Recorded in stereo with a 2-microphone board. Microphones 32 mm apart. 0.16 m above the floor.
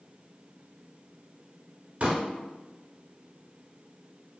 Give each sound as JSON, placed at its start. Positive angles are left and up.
{"t": 2.0, "sound": "a pop", "side_deg": -45, "distance_m": 0.7}